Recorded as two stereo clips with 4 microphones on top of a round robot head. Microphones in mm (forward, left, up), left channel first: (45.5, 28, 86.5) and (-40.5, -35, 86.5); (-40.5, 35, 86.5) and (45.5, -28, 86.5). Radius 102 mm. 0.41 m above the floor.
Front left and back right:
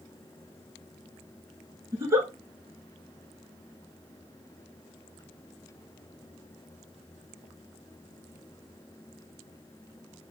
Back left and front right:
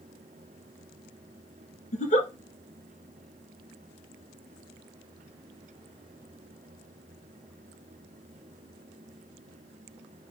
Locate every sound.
1.9 s a giggle: 150° left, 1.1 m